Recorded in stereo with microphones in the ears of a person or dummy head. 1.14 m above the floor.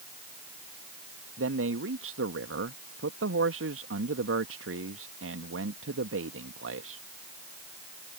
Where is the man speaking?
75° right (ahead or behind).